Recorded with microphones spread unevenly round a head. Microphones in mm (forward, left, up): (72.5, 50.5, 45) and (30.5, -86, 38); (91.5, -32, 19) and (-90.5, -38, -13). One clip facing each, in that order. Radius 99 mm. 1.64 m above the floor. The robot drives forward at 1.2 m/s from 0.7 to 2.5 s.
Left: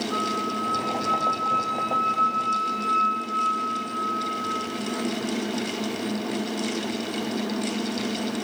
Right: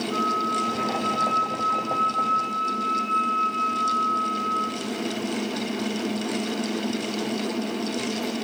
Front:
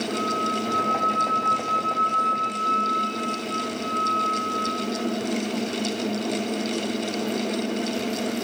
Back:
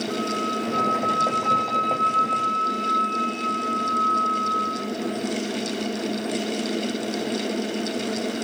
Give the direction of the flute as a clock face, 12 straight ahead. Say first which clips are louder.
Right 2 dB, back 1 dB; 7 o'clock.